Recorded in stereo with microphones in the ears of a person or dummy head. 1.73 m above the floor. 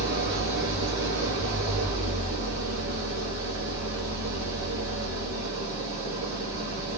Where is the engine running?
40° right (ahead or behind), 0.8 m.